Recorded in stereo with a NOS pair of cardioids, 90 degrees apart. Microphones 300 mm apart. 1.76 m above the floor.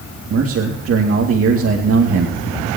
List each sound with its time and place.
0.3 s a man speaking: 50° right, 2.5 m